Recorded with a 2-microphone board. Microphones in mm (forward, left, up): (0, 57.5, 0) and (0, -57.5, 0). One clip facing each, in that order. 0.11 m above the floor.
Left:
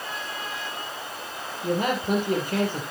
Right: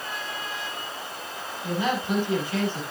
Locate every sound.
1.6 s a man speaking: 50° left (ahead or behind), 3.5 m